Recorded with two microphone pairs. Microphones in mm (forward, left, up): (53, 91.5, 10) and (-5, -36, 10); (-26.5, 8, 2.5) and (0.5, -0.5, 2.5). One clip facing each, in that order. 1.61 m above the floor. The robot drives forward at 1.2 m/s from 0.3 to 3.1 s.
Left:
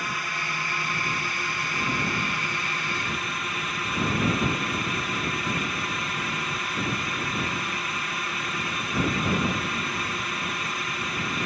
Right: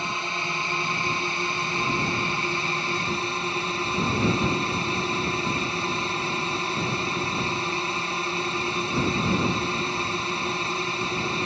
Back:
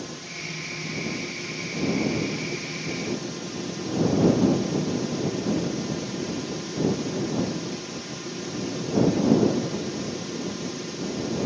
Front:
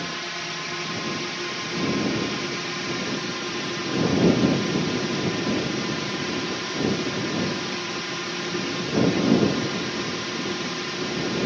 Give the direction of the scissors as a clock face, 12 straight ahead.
No scissors in this recording.